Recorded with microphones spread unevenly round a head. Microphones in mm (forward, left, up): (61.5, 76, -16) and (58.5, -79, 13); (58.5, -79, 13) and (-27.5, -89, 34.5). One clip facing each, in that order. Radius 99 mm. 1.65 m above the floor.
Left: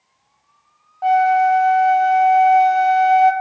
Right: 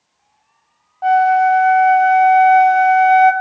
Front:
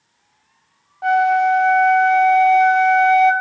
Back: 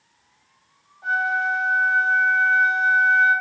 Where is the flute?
5° left, 0.7 m.